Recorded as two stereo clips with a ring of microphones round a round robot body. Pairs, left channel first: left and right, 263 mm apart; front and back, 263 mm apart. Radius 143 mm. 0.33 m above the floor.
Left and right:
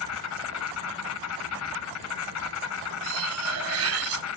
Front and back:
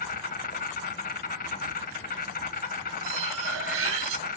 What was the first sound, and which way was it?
An insect, 60° left.